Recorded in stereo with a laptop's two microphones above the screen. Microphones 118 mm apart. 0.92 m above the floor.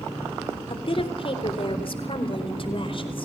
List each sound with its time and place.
0.7 s a woman speaking: 50° left (ahead or behind), 3.5 m